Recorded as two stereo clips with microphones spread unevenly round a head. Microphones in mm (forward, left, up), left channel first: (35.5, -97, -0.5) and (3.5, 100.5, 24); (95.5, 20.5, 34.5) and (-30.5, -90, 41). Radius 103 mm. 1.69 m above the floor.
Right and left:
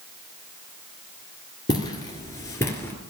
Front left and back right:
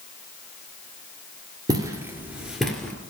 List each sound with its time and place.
1.7 s footsteps: 140° right, 1.7 m; by 2.9 s 5° right, 1.6 m